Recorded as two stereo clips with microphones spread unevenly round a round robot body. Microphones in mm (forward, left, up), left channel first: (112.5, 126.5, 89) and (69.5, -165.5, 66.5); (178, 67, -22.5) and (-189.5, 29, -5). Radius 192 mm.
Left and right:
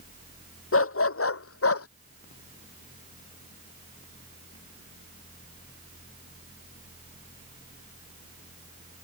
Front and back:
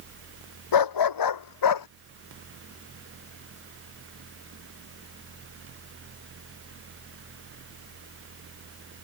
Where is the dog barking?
35° left; by 1.9 s 40° left.